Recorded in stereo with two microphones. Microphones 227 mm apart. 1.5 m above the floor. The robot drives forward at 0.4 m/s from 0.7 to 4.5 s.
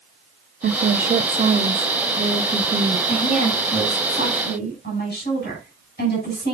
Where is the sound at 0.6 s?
45° right (ahead or behind), 0.6 m; by 3.0 s 20° right (ahead or behind), 1.3 m.